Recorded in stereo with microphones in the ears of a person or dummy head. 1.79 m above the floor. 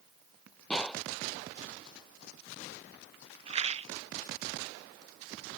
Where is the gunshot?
5° left (ahead or behind).